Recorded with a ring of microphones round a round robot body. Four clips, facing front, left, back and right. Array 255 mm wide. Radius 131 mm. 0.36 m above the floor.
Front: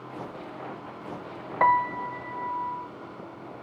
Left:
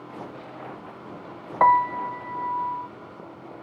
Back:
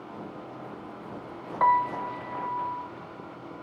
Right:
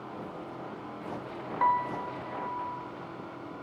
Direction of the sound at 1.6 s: 70° left.